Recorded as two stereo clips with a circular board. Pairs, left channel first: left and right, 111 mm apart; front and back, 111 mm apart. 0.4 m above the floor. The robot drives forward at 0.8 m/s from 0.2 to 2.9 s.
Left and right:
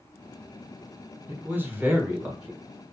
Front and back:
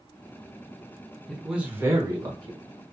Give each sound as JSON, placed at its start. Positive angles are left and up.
{"t": 1.3, "sound": "a man speaking", "azimuth_deg": -80, "distance_m": 1.0}